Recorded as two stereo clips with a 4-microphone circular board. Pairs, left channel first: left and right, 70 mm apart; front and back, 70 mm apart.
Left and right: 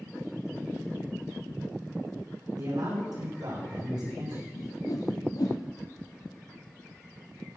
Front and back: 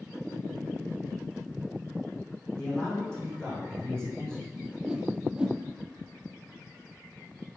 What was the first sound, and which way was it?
A man speaking, 80° right.